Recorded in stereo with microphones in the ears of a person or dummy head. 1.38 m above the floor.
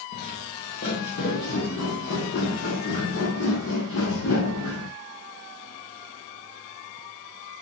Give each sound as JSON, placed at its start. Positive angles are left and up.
{"t": 0.1, "sound": "footsteps", "side_deg": 40, "distance_m": 3.5}